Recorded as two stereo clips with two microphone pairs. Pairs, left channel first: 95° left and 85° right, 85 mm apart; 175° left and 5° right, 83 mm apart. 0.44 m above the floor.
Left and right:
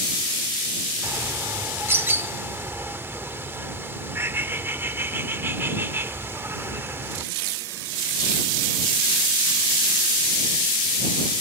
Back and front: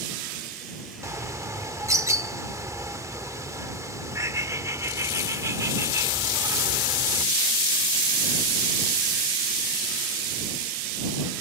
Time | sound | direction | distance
1.0 | a bird | 35° right | ?